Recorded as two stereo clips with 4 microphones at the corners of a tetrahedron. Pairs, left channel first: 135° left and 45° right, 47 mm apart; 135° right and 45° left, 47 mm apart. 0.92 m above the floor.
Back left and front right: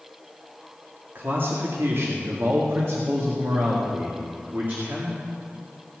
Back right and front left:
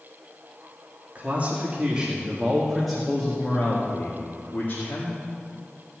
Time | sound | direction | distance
1.1 | a man speaking | 10° right | 2 m